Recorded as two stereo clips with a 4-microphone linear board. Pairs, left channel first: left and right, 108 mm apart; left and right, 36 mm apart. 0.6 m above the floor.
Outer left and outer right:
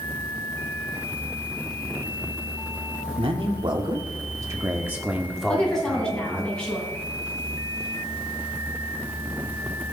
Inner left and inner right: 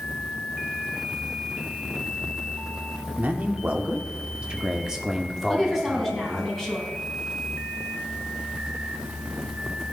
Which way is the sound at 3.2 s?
55° right (ahead or behind).